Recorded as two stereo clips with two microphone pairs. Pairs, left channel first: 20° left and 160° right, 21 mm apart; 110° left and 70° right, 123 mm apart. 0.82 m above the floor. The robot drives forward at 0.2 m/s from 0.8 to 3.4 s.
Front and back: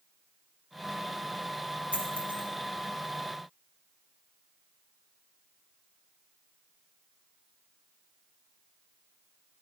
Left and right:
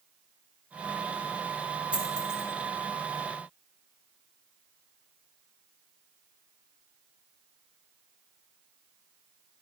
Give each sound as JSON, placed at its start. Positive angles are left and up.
{"t": 1.9, "sound": "a dropped coin", "azimuth_deg": -150, "distance_m": 1.7}